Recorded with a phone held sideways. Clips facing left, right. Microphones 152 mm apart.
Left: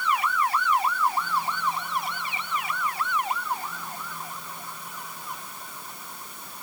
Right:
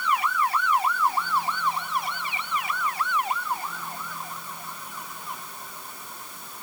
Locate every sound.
Only background noise.